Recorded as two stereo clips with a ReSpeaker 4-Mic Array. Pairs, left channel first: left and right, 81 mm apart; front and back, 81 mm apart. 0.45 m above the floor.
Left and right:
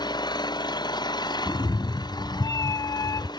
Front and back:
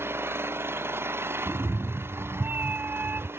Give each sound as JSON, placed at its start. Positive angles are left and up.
{"t": 0.0, "sound": "an engine running", "azimuth_deg": 120}
{"t": 1.5, "sound": "a cat meowing", "azimuth_deg": 120}